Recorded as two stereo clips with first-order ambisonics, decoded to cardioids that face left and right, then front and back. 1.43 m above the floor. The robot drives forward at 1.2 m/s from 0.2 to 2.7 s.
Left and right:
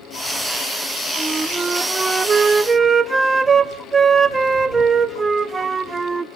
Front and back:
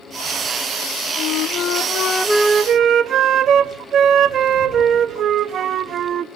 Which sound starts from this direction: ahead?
A flute, at 1.2 s.